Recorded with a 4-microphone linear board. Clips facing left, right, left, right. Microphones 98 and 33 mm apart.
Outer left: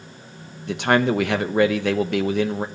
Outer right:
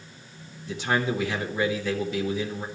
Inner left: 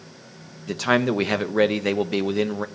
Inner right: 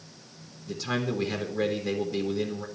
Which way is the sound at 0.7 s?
70° left (ahead or behind).